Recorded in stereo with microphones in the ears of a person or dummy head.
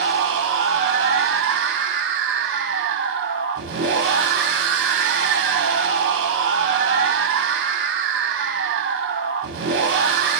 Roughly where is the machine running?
Right.